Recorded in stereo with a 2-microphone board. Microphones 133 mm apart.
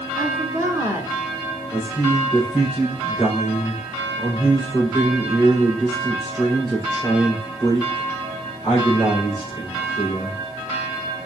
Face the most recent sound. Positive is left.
turn(degrees=-5)  # may be behind; listen again after turning